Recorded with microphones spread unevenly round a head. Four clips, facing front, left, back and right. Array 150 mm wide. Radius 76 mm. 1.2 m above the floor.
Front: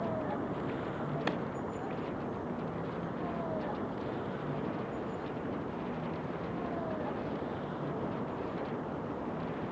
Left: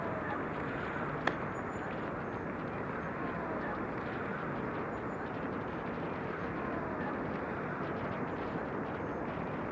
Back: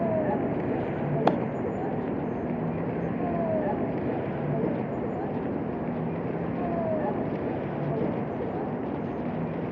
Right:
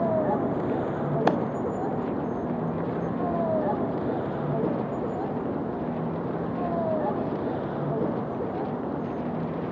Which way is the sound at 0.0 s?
125° right.